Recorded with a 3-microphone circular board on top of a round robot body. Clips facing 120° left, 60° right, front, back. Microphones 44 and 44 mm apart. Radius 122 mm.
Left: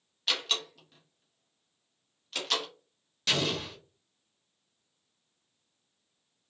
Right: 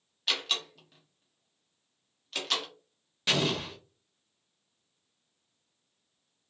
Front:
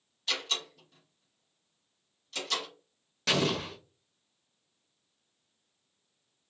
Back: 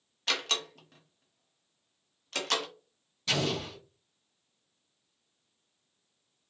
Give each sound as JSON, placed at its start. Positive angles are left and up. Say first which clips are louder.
{"t": 0.3, "sound": "a door slam", "louder": "even, back 2 dB", "azimuth_deg": -145, "distance_m": 1.0}
{"t": 3.3, "sound": "an explosion", "louder": "right 1 dB, front 2 dB", "azimuth_deg": 15, "distance_m": 0.8}